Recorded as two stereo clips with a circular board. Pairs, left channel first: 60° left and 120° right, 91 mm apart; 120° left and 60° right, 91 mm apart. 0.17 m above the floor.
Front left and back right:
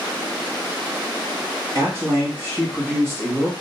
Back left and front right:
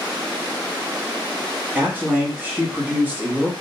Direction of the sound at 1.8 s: 110° right.